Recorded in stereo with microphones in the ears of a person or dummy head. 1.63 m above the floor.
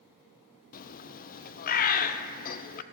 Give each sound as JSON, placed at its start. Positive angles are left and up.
{"t": 0.7, "sound": "a bird", "side_deg": 45, "distance_m": 0.6}